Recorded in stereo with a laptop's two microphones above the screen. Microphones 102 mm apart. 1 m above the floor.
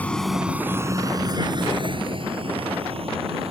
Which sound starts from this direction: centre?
A vehicle, at 0.0 s.